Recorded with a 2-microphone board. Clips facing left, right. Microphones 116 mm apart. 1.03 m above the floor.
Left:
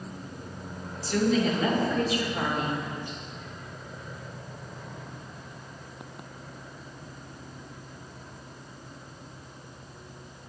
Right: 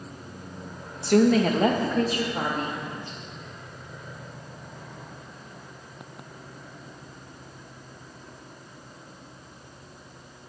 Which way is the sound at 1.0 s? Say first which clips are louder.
Right 6 dB; 65° right (ahead or behind).